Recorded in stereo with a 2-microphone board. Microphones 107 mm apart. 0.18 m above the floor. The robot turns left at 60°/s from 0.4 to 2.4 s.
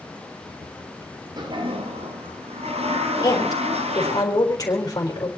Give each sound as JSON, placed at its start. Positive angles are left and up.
{"t": 1.4, "sound": "a toilet flushing", "azimuth_deg": -40, "distance_m": 1.9}
{"t": 3.2, "sound": "a woman speaking", "side_deg": 35, "distance_m": 4.0}